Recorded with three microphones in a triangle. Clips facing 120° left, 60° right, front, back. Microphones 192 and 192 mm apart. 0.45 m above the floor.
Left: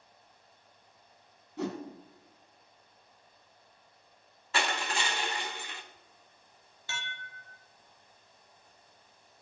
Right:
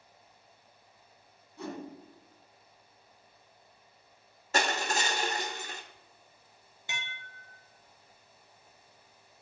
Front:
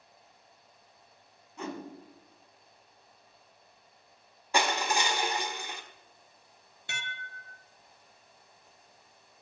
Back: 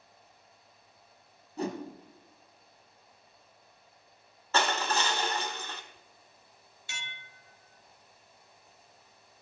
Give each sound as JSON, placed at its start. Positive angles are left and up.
{"t": 1.6, "sound": "a whoosh", "azimuth_deg": 125, "distance_m": 2.0}
{"t": 4.5, "sound": "crushing", "azimuth_deg": -70, "distance_m": 1.4}
{"t": 6.9, "sound": "dishes clattering", "azimuth_deg": 10, "distance_m": 1.2}